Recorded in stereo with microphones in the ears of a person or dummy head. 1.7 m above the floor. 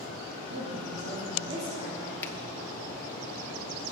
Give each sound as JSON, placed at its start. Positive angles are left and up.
{"t": 0.5, "sound": "a woman speaking", "side_deg": -30, "distance_m": 3.0}
{"t": 2.2, "sound": "a finger snap", "side_deg": 10, "distance_m": 0.8}